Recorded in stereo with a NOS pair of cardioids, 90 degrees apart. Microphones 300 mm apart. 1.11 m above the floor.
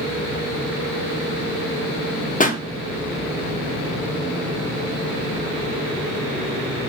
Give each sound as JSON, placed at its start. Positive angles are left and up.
{"t": 2.4, "sound": "a pop", "azimuth_deg": 25, "distance_m": 1.3}